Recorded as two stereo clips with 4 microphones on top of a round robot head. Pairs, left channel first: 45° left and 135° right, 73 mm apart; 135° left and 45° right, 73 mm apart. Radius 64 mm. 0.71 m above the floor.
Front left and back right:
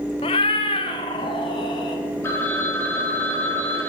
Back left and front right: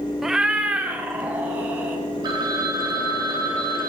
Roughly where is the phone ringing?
Ahead.